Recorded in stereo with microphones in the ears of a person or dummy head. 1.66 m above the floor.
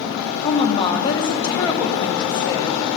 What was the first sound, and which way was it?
A woman speaking, 25° left (ahead or behind).